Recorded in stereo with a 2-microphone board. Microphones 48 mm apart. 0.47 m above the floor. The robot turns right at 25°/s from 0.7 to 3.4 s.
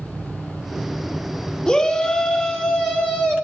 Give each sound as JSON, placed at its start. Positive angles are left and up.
{"t": 1.7, "sound": "a shout", "side_deg": 25, "distance_m": 1.2}